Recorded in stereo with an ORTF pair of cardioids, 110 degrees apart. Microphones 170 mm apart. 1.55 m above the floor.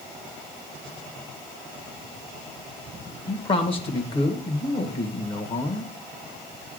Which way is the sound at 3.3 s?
30° left.